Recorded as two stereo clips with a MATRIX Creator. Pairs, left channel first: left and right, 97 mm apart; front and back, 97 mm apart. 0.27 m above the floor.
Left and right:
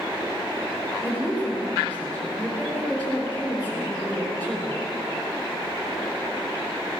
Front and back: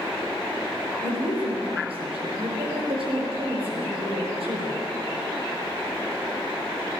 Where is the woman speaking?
165° left, 5.5 m.